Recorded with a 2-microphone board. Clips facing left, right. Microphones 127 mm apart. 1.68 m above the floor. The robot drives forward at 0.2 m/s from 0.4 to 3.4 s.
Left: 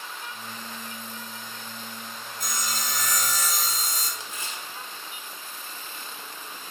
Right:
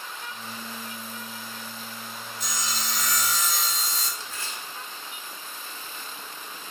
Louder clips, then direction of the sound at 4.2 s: Even; 20° left (ahead or behind).